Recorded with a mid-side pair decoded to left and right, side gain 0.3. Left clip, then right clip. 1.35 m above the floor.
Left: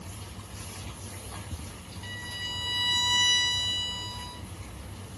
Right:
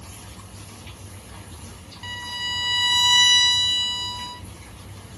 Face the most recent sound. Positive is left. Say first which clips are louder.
# right 7 dB
turn(degrees=-65)